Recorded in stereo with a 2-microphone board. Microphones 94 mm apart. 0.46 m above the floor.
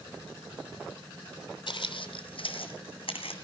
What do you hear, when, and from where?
1.7 s footsteps: 65° left (ahead or behind), 0.9 m; by 3.3 s 75° left (ahead or behind), 1.9 m